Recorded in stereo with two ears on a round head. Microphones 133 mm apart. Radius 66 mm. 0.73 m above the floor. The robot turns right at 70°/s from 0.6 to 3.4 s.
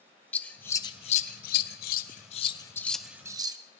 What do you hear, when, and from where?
0.3 s scissors: 10° left (ahead or behind), 0.6 m; by 3.6 s 25° right (ahead or behind), 0.6 m